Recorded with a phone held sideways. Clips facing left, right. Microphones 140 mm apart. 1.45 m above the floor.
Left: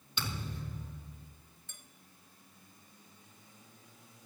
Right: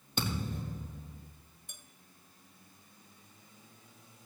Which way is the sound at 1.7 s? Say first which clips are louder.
Right 3 dB; 20° right (ahead or behind).